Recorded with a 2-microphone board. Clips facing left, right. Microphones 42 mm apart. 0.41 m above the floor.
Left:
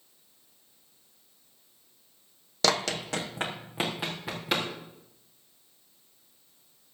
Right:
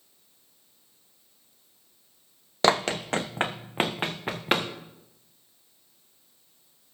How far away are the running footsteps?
About 0.7 m.